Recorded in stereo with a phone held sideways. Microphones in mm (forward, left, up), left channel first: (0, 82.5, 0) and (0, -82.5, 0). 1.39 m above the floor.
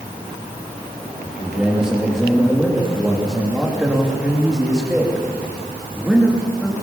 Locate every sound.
1.2 s a man speaking: centre (ahead or behind), 3 m